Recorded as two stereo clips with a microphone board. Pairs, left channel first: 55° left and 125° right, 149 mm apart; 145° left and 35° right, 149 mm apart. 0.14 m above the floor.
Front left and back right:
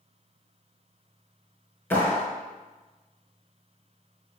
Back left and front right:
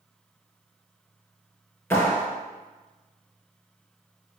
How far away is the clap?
About 0.9 m.